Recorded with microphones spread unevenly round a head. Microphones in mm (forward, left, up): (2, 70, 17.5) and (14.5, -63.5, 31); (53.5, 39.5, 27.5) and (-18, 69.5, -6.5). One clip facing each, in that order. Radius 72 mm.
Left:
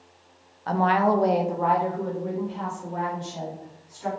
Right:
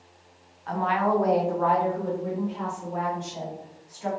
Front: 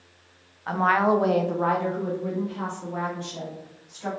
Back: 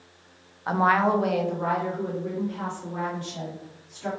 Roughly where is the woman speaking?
Left.